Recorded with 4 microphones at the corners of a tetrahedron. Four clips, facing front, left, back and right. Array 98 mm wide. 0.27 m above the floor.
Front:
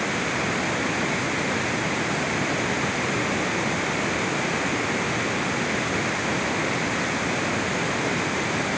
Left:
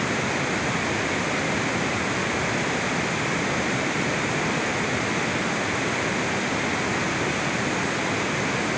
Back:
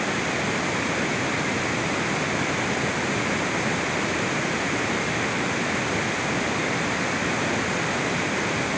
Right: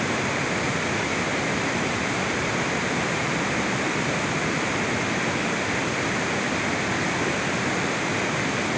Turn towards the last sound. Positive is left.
No sound to turn to.